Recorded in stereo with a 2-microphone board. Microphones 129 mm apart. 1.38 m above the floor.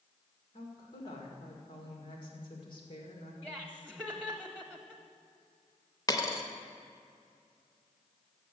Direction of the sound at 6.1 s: 25° left (ahead or behind).